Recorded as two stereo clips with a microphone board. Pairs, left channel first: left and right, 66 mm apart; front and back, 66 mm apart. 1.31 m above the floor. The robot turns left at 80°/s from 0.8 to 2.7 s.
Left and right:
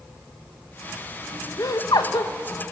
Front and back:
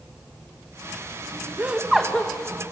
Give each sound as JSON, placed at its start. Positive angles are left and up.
{"t": 1.6, "sound": "laughter", "azimuth_deg": 120, "distance_m": 1.0}